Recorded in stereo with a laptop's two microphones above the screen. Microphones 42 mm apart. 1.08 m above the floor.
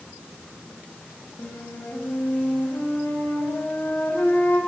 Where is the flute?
55° left (ahead or behind), 7 m.